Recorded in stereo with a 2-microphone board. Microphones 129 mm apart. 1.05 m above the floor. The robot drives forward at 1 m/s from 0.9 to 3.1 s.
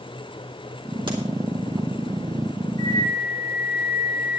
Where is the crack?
40° right (ahead or behind), 3.5 m.